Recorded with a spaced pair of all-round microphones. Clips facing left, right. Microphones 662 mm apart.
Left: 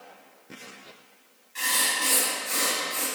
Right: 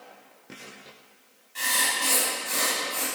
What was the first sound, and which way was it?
Writing, 20° right (ahead or behind).